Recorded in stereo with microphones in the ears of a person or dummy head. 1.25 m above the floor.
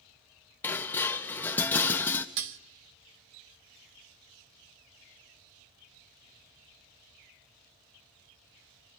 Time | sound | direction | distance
0.6 | dishes clattering | 10° left (ahead or behind) | 0.6 m
2.4 | dishes clattering | 55° right (ahead or behind) | 0.6 m